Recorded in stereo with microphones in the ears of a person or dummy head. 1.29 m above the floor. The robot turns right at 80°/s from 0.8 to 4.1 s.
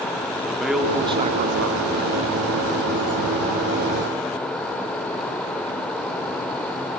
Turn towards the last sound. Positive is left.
turn(degrees=95)